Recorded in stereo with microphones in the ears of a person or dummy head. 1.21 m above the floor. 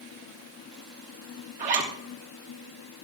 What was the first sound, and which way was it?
A zipper, 40° right (ahead or behind).